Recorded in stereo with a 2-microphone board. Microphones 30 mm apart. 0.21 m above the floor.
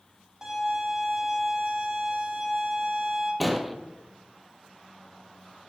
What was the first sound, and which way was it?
A violin, 25° right (ahead or behind).